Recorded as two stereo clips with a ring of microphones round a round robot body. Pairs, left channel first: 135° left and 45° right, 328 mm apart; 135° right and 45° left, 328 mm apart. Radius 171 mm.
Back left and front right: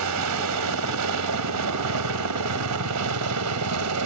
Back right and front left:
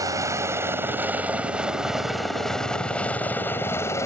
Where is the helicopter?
35° right; by 4.1 s 55° right.